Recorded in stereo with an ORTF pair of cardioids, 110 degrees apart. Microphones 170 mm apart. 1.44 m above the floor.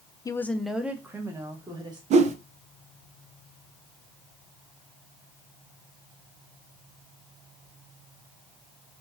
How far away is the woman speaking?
About 0.5 m.